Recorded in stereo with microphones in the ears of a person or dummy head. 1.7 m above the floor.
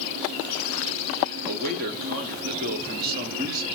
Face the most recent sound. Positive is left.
turn(degrees=-50)  # may be behind; listen again after turning